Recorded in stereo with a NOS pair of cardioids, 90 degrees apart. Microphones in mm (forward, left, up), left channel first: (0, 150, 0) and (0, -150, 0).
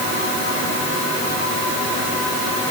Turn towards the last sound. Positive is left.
No sound to turn to.